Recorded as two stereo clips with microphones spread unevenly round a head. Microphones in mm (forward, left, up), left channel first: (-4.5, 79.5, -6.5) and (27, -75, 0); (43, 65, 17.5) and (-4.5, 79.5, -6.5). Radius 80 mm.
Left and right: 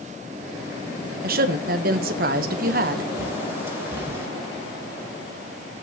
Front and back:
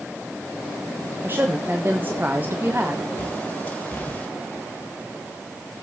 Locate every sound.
1.2 s a woman speaking: 115° right, 1.2 m
3.2 s a bird: 5° right, 2.0 m